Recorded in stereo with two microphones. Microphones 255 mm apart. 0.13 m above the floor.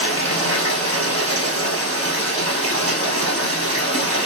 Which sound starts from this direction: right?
Running water, at 0.0 s.